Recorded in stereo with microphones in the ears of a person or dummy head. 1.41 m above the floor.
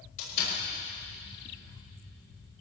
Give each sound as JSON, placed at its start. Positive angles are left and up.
{"t": 0.2, "sound": "a door slam", "side_deg": 45, "distance_m": 6.0}